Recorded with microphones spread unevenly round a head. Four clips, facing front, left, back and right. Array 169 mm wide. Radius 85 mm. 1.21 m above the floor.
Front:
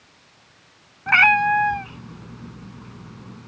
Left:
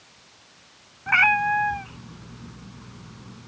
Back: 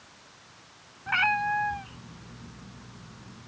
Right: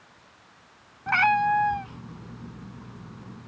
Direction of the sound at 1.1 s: 10° right.